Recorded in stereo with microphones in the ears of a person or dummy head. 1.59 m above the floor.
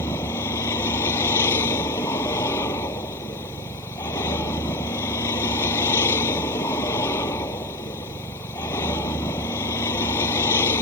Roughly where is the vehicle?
Centre.